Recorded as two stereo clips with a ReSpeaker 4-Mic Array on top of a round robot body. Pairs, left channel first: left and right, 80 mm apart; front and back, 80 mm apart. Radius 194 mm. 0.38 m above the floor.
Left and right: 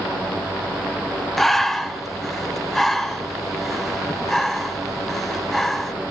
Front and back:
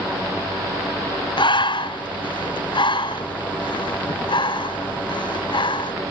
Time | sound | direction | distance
1.4 | breathing | straight ahead | 1.7 m